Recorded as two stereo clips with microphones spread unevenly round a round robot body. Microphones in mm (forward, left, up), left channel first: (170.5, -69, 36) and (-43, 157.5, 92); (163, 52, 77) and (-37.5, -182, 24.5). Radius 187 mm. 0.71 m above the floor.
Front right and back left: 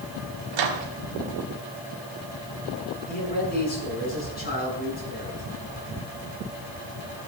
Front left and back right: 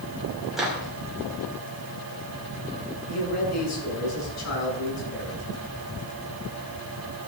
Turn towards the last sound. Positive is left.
turn(degrees=15)